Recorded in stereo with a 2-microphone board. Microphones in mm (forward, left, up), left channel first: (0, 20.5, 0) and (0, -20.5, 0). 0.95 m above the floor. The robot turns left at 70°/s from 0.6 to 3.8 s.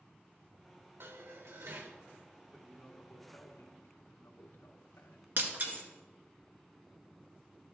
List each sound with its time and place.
1.0 s dishes clattering: 60° right, 1.3 m; by 2.0 s 130° right, 1.3 m
2.5 s a man speaking: 170° right, 1.2 m; by 5.3 s 100° left, 1.2 m
5.4 s breaking glass: 45° right (ahead or behind), 1.5 m